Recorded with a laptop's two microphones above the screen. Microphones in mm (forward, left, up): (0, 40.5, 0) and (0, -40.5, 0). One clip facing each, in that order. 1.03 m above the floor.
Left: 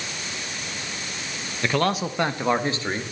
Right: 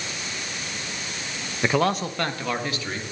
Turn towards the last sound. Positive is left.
turn(degrees=35)  # may be behind; listen again after turning